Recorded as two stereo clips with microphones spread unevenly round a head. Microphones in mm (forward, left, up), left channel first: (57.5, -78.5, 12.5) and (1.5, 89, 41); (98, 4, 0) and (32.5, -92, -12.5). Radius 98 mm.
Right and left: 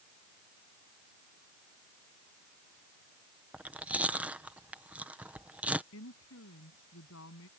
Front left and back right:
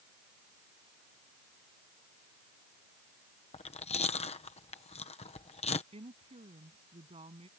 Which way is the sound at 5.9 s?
90° right.